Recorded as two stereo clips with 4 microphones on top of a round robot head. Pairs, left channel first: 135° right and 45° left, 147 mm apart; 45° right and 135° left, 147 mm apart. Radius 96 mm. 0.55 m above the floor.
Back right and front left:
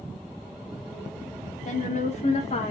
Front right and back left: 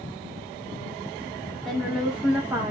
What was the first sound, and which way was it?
A woman speaking, 135° right.